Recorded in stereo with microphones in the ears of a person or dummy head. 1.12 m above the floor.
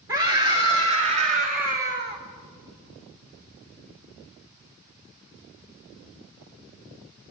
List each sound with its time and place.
0.1 s a scream: 20° right (ahead or behind), 2.5 m; by 2.2 s 50° right (ahead or behind), 1.9 m